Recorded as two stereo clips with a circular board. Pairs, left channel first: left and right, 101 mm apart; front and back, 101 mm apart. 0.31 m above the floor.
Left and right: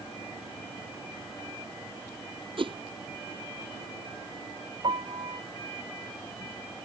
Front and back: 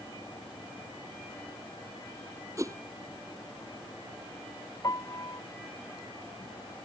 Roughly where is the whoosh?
Behind right.